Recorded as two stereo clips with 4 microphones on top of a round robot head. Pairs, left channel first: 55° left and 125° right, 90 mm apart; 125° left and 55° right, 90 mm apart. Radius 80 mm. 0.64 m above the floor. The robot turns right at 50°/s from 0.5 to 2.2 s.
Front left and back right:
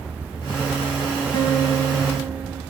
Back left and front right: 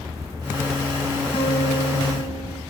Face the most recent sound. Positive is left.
turn(degrees=140)